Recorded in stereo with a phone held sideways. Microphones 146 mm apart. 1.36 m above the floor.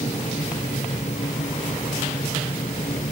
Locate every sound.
0.0 s a fan: 50° left (ahead or behind)